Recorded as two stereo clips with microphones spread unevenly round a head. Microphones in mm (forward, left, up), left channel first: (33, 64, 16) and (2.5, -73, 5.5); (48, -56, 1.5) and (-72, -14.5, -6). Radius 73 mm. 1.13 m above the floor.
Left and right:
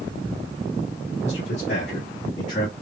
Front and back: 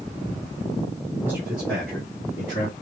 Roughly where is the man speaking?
Left.